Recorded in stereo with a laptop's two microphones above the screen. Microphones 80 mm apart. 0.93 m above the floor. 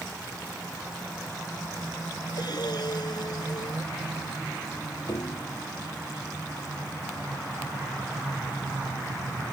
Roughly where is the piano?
Left.